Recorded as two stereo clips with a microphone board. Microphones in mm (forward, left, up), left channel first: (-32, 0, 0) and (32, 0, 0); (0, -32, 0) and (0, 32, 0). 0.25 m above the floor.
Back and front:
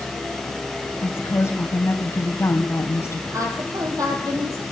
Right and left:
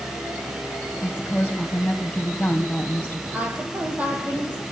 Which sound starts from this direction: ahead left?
A woman speaking, at 3.3 s.